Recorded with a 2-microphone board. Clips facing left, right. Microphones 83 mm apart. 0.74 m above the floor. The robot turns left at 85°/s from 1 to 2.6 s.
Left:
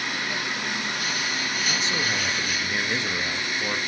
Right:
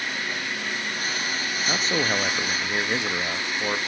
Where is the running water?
105° left, 6 m; by 3.9 s 30° right, 6 m.